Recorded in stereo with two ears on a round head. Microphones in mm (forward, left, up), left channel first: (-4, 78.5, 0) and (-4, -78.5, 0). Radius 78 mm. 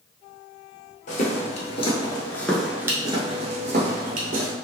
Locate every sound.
1.1 s footsteps: 50° left (ahead or behind), 1.2 m; by 4.5 s 55° right (ahead or behind), 1.5 m